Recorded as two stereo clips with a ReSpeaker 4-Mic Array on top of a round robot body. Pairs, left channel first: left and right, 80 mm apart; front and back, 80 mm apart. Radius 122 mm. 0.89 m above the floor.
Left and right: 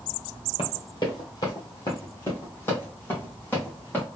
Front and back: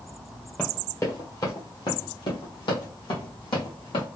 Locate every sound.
0.6 s running footsteps: 70° left, 1.1 m; by 4.1 s 20° left, 2.5 m